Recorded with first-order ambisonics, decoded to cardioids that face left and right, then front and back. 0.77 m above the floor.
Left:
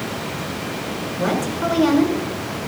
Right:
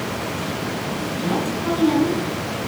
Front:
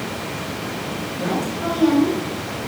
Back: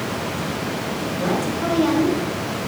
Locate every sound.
1.2 s a woman speaking: 105° left, 8.5 m